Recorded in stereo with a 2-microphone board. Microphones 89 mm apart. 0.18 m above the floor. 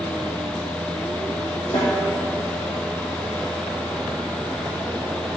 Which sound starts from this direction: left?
A snare drum, at 1.7 s.